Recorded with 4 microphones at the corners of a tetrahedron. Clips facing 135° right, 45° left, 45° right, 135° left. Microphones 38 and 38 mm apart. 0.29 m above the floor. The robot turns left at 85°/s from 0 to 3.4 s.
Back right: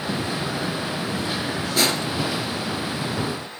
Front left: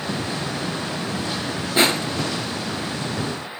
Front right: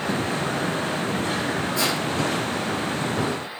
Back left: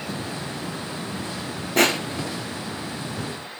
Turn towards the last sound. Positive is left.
turn(degrees=-30)